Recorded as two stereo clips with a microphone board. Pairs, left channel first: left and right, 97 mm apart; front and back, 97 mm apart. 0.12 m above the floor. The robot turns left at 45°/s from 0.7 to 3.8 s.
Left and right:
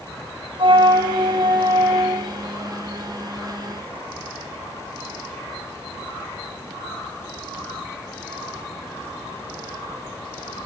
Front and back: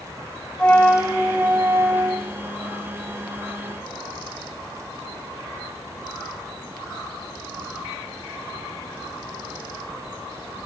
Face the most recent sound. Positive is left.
turn(degrees=150)